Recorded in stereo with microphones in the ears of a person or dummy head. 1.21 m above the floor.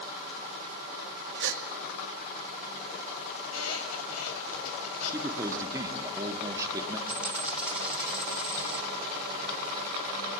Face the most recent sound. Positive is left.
turn(degrees=-10)  # may be behind; listen again after turning